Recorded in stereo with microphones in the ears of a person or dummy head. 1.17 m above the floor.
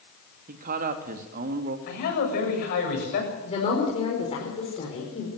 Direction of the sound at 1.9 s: 55° left (ahead or behind).